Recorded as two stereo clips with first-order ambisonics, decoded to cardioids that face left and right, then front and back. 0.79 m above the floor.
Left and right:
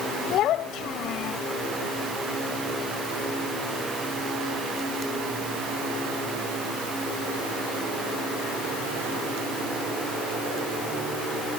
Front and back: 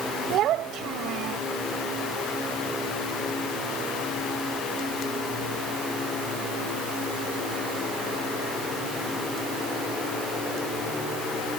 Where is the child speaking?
135° left.